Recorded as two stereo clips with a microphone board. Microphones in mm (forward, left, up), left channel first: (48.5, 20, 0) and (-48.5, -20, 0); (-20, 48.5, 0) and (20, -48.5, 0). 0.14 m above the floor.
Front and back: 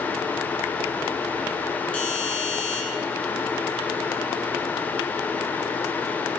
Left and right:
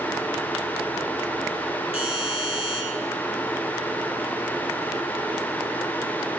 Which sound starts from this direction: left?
A doorbell, at 1.9 s.